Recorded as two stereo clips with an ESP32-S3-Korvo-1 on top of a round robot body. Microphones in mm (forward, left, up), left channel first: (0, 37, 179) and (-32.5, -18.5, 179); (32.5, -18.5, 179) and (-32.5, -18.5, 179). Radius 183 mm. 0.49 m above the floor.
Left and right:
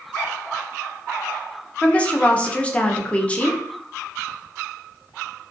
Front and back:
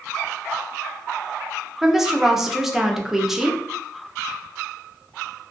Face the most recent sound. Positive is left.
turn(degrees=105)